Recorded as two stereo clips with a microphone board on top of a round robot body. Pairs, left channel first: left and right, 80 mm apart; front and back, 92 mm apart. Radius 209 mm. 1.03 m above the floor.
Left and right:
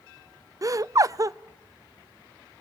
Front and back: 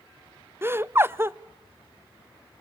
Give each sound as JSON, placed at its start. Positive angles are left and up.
{"t": 0.6, "sound": "laughter", "azimuth_deg": -120, "distance_m": 0.7}